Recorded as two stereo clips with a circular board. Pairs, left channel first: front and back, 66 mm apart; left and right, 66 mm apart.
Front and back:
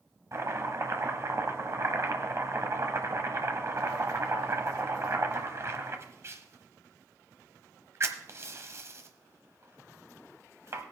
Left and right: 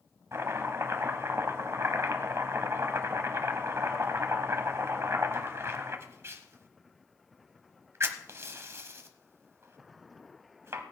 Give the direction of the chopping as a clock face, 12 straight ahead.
5 o'clock.